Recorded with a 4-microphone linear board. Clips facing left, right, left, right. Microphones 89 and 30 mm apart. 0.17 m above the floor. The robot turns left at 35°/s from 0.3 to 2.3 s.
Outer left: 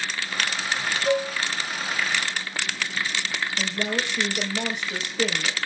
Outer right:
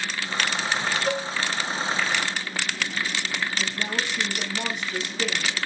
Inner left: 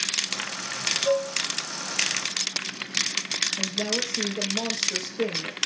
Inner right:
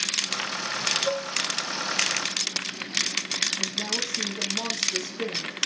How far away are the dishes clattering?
About 1.2 m.